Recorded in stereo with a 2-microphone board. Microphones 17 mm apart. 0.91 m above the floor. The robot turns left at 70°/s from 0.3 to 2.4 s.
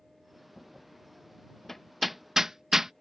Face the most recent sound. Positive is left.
turn(degrees=-30)  # may be behind; listen again after turning